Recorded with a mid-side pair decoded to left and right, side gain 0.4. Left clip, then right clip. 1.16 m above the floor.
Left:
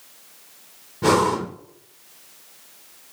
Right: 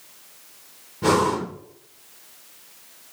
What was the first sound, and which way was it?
Breathing, 15° left.